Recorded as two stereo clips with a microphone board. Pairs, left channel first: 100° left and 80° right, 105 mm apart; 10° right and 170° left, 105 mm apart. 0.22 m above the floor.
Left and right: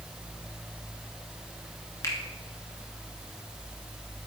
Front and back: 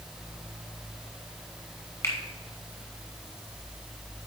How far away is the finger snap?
About 1.8 m.